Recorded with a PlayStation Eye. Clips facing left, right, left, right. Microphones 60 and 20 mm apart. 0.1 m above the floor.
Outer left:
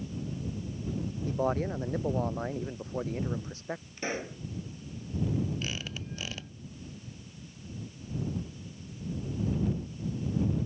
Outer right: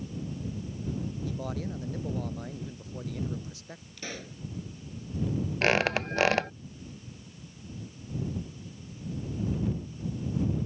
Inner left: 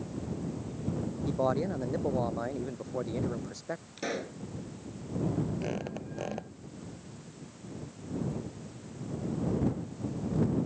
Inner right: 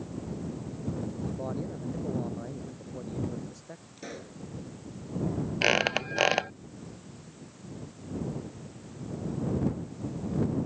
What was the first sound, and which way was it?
A man speaking, 40° left (ahead or behind).